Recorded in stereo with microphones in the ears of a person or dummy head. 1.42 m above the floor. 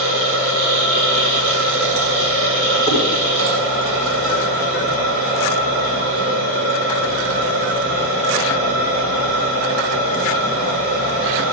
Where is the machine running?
75° right (ahead or behind), 7 m.